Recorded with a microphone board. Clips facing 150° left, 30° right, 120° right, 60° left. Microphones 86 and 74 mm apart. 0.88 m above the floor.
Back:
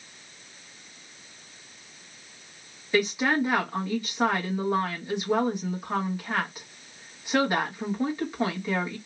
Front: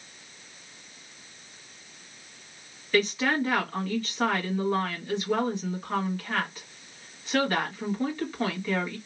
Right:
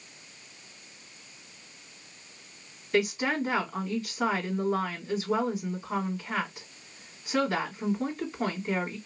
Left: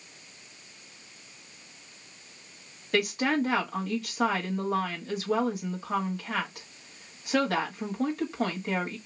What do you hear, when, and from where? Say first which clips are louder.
2.9 s a woman speaking: back 1 dB, left 1 dB; 75° left, 1.6 m